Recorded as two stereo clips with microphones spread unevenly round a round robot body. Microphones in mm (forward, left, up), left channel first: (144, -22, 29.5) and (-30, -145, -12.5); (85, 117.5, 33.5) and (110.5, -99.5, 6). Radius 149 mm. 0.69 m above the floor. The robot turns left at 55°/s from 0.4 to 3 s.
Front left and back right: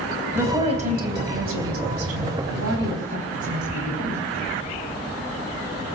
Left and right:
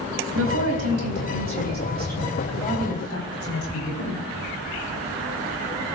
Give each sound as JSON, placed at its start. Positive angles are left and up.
{"t": 0.3, "sound": "a woman speaking", "azimuth_deg": -65, "distance_m": 4.0}